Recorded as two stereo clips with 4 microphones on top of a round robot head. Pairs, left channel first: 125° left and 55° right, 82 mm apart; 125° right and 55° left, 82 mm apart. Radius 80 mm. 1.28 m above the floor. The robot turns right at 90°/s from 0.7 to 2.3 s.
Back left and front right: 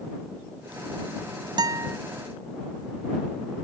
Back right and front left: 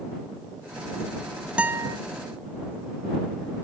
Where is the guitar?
20° right; by 2.0 s 15° left.